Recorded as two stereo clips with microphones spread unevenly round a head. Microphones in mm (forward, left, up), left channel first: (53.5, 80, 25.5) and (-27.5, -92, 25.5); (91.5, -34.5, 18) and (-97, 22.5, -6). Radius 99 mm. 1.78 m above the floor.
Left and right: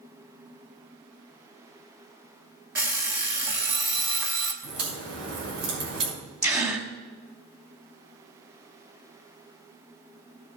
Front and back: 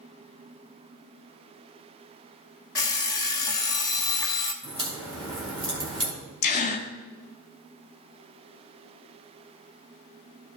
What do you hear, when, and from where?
2.8 s an alarm clock: 50° right, 1.3 m
4.6 s a crack: 130° right, 5 m
6.4 s a gasp: 50° right, 2.5 m